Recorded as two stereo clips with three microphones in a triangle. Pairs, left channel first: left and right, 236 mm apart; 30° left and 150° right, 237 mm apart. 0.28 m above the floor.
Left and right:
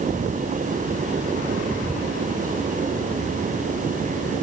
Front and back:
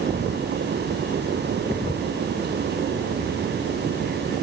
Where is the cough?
No cough in this recording.